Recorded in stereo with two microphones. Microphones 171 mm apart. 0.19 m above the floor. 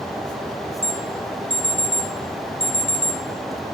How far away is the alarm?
About 4.5 m.